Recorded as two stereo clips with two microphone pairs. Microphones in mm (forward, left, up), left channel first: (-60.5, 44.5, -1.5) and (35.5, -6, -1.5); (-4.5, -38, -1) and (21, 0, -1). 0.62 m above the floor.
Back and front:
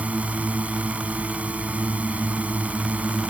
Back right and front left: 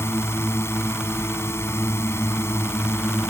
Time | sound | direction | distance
0.0 | a drone | 105° right | ?